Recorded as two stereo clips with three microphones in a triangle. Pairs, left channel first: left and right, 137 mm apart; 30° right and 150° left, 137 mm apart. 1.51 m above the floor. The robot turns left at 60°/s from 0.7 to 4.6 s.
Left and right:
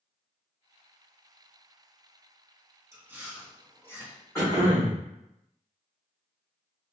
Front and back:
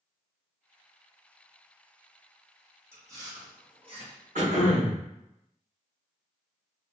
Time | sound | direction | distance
2.9 | chewing | 145° right | 0.8 m
4.3 | throat clearing | 155° left | 1.3 m